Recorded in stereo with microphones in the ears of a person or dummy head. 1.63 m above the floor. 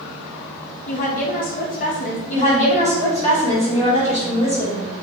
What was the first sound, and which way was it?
A woman speaking, 40° left (ahead or behind).